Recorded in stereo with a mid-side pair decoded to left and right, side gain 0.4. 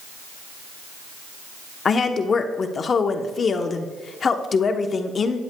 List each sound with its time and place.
1.9 s a woman speaking: 50° left, 1.0 m